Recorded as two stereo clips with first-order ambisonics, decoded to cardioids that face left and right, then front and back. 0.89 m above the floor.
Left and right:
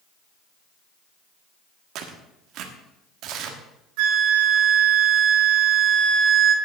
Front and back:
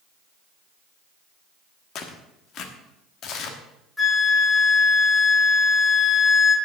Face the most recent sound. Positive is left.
turn(degrees=-85)